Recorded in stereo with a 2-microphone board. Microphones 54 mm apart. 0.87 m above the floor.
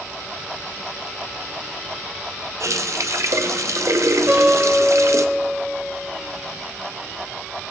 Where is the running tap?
65° right (ahead or behind), 0.5 m.